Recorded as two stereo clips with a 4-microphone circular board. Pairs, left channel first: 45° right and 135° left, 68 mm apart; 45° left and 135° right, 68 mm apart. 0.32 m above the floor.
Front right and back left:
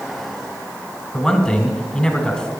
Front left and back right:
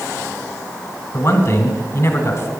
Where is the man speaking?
35° left, 1.7 m.